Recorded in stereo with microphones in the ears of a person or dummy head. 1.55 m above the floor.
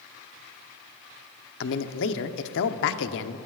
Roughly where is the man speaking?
Left.